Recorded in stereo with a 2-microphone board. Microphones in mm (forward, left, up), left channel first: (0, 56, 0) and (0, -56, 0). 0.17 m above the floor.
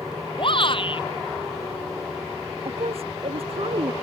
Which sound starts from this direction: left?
A shout, at 0.4 s.